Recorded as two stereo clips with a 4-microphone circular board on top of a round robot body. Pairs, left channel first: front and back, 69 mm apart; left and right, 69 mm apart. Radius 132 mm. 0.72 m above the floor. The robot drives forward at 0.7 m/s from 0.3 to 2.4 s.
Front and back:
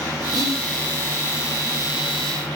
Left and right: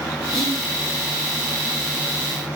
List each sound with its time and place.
0.3 s whispering: 175° left, 1.3 m